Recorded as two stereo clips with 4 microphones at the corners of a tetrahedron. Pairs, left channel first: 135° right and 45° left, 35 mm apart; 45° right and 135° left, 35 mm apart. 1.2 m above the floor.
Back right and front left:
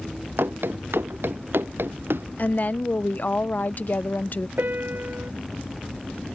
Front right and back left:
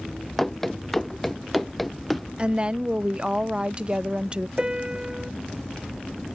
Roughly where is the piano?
Left.